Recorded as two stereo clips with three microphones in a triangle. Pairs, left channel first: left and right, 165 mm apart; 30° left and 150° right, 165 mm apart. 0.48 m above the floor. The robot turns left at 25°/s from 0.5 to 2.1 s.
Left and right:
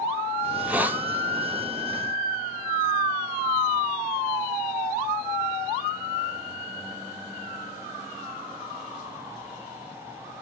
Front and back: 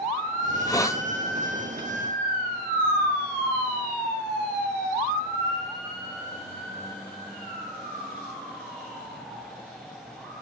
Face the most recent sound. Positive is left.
turn(degrees=-50)